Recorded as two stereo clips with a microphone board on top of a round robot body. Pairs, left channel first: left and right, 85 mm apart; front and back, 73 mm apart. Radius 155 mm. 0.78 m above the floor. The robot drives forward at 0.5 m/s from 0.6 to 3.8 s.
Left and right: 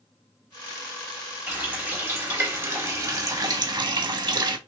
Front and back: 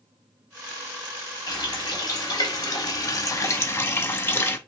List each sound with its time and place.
1.5 s a running tap: 20° right, 1.6 m; by 4.6 s 60° right, 0.7 m